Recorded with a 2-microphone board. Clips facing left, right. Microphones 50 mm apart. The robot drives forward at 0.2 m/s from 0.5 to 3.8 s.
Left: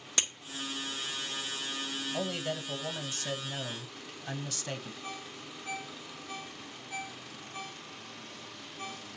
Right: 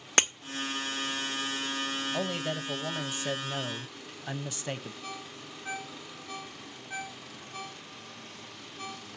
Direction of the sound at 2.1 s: 15° right (ahead or behind).